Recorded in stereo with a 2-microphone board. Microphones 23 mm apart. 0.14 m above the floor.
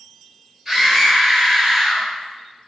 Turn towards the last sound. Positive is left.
turn(degrees=-30)  # may be behind; listen again after turning